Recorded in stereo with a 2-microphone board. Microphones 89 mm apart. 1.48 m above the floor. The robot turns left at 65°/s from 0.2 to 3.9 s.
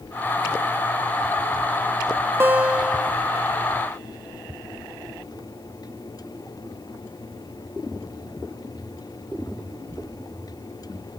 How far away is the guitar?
About 1.1 m.